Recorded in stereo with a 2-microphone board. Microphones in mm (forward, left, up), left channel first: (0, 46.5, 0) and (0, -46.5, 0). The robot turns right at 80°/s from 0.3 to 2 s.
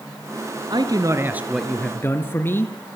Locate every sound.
0.7 s a man speaking: 75° right, 2.5 m; by 2.7 s 30° left, 2.5 m